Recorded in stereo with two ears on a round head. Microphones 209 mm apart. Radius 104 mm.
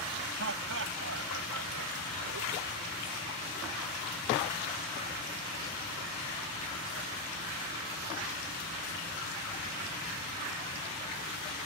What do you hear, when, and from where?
0.4 s laughter: 60° right (ahead or behind); by 2.8 s 70° right (ahead or behind)